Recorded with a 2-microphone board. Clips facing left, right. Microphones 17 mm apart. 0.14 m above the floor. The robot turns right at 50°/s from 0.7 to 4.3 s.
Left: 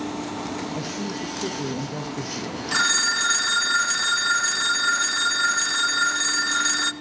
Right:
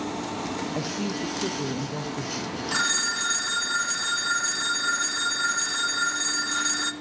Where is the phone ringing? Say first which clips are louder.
Left 5 dB; 15° left (ahead or behind), 0.8 m; by 6.9 s 25° left (ahead or behind), 0.8 m.